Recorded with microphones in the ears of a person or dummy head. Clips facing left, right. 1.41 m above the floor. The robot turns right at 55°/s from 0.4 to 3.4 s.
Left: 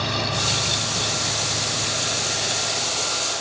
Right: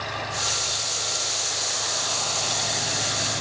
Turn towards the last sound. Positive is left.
turn(degrees=-140)